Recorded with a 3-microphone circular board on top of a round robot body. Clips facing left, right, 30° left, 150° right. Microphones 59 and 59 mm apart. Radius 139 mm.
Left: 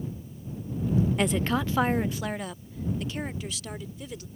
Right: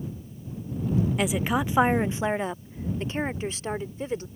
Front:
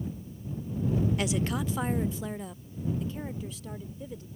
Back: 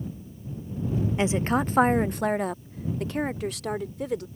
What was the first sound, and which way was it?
A woman speaking, 175° right.